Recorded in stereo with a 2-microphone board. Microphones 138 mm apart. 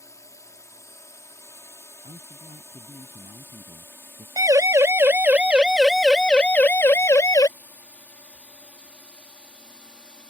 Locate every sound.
0.0 s a drone: 20° left (ahead or behind); by 10.3 s 5° left (ahead or behind)
2.0 s a man speaking: 55° right (ahead or behind)
4.4 s a siren: 25° right (ahead or behind); by 7.5 s 25° left (ahead or behind)